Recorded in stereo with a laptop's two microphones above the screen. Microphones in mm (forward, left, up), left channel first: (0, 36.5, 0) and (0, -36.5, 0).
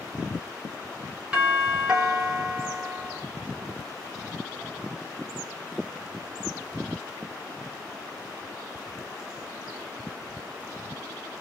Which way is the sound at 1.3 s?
15° right (ahead or behind).